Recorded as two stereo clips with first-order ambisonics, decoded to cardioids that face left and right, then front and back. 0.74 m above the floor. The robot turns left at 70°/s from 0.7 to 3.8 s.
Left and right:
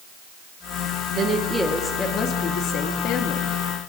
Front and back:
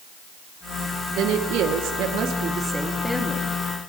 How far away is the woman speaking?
About 1.1 m.